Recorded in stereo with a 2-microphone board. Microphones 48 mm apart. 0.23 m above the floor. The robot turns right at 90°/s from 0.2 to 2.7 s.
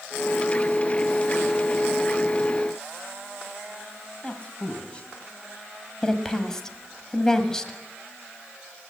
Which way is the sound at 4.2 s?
20° left (ahead or behind).